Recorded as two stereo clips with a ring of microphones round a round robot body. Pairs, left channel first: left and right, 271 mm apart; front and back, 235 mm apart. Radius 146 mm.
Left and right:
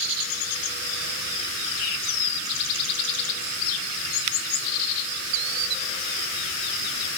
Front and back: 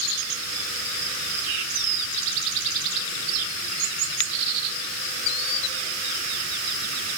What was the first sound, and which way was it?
Only background noise.